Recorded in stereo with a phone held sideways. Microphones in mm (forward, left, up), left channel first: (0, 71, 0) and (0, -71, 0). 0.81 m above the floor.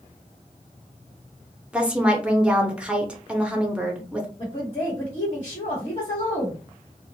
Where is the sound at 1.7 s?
10° right (ahead or behind), 0.7 m.